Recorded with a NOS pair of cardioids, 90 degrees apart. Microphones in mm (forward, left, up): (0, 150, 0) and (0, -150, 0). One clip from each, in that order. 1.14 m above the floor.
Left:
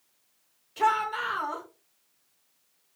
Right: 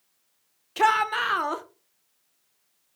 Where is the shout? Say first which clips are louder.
Right 4 dB; 60° right, 0.9 m.